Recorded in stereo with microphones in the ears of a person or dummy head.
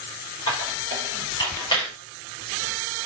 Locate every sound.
0.5 s a squeak: 25° left (ahead or behind), 5.5 m